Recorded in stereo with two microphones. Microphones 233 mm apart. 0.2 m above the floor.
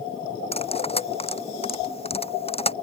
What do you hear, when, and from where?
0.5 s cutlery clinking: 25° left (ahead or behind)